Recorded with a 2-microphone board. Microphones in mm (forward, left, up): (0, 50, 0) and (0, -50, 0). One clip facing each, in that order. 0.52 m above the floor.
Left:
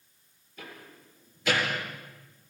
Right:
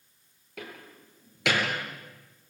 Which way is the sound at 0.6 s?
80° right.